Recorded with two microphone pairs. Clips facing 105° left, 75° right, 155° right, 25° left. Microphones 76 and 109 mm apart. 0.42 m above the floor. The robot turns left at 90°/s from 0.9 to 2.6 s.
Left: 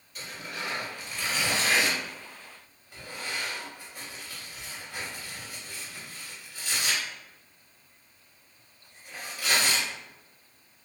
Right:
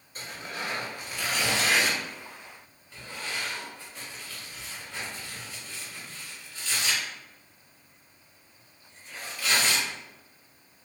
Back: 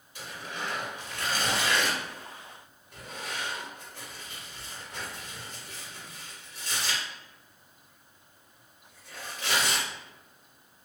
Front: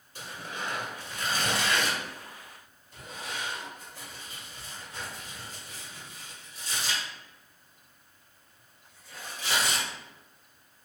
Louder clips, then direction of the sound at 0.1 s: Right 1 dB, even; 25° right.